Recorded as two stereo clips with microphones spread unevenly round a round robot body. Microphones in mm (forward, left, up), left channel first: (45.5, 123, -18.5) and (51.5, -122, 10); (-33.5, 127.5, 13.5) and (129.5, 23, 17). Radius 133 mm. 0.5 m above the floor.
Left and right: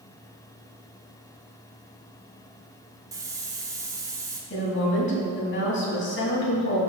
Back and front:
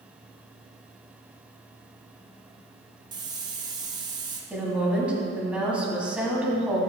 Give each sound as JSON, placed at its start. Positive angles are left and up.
{"t": 3.1, "sound": "a hiss", "azimuth_deg": -15, "distance_m": 1.0}
{"t": 4.5, "sound": "a woman speaking", "azimuth_deg": 50, "distance_m": 3.0}